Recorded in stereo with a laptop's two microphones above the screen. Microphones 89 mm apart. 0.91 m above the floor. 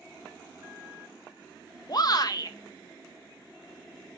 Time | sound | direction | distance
1.9 | a shout | 50° left (ahead or behind) | 0.8 m